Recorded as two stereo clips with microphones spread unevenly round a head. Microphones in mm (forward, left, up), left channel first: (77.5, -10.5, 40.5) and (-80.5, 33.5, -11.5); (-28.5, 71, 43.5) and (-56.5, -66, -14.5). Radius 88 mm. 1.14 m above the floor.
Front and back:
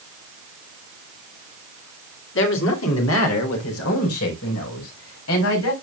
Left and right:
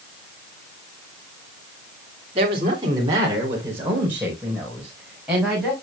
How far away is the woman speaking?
About 2.5 m.